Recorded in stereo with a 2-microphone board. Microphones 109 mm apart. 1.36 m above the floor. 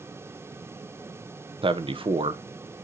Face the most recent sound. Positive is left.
turn(degrees=-50)  # may be behind; listen again after turning